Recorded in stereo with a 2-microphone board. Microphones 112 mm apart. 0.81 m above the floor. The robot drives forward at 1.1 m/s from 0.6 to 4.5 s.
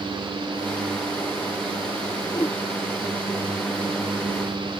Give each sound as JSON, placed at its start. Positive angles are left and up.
{"t": 2.3, "sound": "a whoosh", "side_deg": 25}